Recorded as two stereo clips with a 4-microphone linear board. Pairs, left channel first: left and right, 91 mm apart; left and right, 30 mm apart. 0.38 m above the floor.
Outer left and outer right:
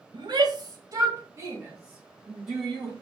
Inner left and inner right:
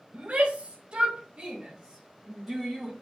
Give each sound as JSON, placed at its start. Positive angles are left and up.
{"t": 0.1, "sound": "a shout", "side_deg": -55, "distance_m": 1.7}